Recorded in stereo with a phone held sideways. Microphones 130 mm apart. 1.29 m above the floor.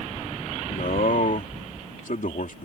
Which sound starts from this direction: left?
A man speaking, at 0.7 s.